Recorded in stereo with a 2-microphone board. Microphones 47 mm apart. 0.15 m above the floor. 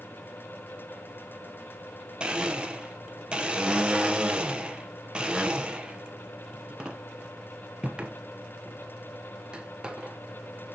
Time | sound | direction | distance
2.2 | a blender | 20° right (ahead or behind) | 1.0 m